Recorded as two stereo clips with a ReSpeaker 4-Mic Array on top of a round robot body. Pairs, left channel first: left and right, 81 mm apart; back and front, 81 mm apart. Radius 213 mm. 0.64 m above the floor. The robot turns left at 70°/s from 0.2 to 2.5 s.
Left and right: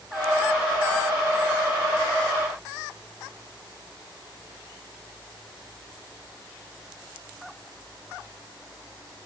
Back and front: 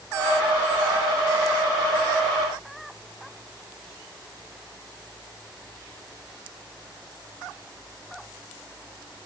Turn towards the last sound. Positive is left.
No sound to turn to.